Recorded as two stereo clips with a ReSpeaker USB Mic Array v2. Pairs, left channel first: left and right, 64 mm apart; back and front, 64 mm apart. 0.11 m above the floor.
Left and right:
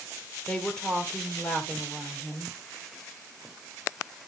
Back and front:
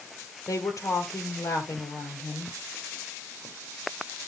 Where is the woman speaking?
165° left, 2.5 m.